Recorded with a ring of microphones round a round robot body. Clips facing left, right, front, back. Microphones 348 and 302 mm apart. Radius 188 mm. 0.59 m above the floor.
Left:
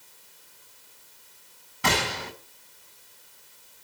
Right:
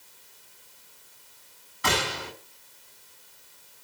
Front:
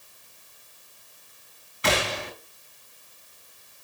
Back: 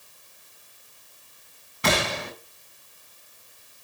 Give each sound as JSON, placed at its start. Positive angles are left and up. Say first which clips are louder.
{"t": 1.8, "sound": "a gunshot", "louder": "left 1 dB, back 1 dB", "azimuth_deg": 140, "distance_m": 4.0}